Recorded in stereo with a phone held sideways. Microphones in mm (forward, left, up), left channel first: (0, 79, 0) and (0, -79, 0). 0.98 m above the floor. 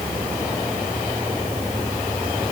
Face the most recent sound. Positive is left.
No sound to turn to.